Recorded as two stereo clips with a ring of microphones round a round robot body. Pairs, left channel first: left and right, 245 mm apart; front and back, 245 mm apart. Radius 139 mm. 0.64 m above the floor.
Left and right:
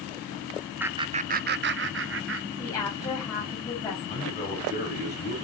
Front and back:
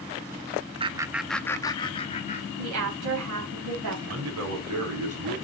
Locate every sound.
0.8 s laughter: 165° right, 0.6 m; by 2.5 s 60° right, 1.2 m
2.6 s a woman speaking: 170° left, 4.5 m
4.1 s a man speaking: 155° left, 4 m